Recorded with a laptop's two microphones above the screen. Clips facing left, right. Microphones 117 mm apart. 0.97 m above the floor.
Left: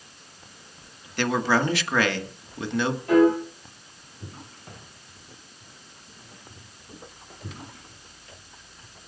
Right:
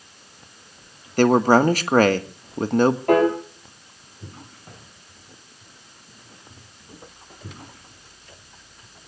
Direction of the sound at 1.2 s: 45° right (ahead or behind).